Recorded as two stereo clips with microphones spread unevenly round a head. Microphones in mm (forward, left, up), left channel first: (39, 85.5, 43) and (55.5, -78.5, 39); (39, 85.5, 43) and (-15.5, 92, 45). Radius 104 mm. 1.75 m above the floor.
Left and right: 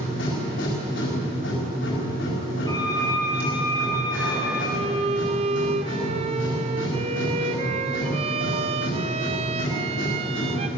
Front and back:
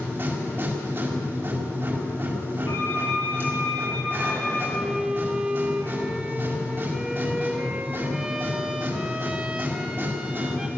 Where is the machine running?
120° left, 6 m.